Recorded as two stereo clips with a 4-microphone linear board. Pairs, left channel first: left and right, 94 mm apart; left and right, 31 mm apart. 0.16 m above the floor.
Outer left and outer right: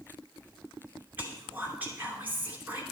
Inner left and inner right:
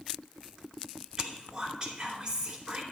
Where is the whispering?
20° right (ahead or behind), 2.5 m.